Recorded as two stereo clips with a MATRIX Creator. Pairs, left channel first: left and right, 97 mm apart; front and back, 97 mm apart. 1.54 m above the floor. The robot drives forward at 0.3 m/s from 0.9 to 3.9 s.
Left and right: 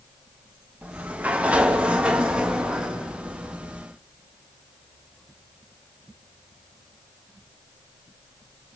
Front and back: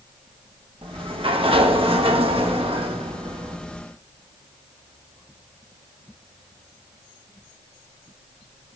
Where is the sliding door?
165° right, 1.3 m; by 3.6 s 170° right, 2 m.